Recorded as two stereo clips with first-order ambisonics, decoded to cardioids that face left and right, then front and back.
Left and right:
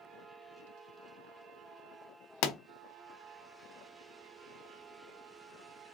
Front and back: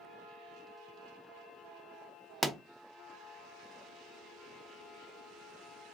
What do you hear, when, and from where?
2.4 s a pop: 85° left, 0.5 m